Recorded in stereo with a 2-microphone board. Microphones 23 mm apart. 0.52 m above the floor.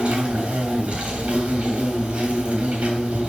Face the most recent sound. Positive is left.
turn(degrees=-65)  # may be behind; listen again after turning